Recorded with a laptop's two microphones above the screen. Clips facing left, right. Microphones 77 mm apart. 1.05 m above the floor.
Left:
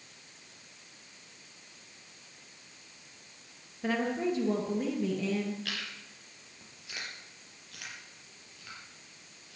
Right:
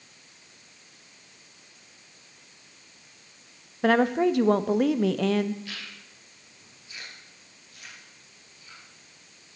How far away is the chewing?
About 4.5 m.